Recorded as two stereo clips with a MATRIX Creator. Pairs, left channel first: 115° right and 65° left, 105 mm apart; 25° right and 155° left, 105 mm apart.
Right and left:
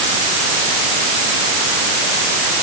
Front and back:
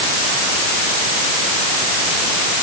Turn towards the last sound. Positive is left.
No sound to turn to.